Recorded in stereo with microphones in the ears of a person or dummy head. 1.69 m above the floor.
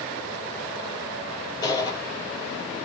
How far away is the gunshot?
About 7.5 m.